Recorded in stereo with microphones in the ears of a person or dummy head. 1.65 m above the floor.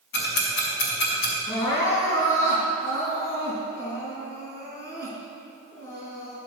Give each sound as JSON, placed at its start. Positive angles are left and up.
{"t": 0.1, "sound": "ticking", "side_deg": 55, "distance_m": 2.5}
{"t": 1.5, "sound": "crying", "side_deg": 40, "distance_m": 3.0}